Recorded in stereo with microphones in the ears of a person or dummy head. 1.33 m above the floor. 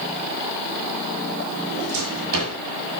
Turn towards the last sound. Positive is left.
turn(degrees=-85)